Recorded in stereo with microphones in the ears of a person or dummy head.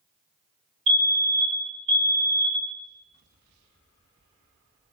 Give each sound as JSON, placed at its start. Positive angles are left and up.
{"t": 0.9, "sound": "a fire alarm", "side_deg": -60, "distance_m": 2.0}